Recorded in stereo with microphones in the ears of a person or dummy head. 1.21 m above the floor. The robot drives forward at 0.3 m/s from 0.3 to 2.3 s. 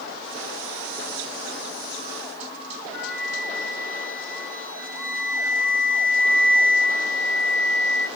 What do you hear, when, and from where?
2.9 s a flute: 10° left (ahead or behind), 0.9 m